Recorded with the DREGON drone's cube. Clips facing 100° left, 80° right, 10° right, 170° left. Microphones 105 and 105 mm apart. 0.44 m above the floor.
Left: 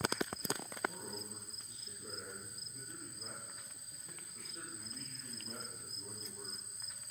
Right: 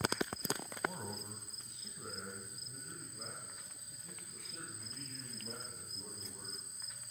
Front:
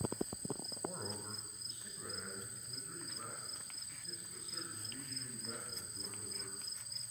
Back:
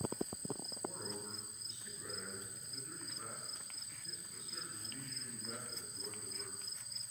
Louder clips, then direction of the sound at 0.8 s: Right 1 dB, front 1 dB; 75° right.